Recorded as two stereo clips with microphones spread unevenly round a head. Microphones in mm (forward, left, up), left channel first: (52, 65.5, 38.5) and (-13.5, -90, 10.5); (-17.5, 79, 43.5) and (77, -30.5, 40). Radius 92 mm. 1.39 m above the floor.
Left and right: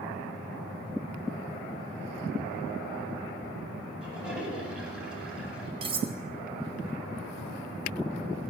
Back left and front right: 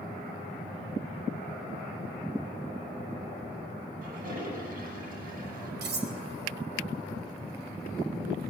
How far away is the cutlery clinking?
About 3 m.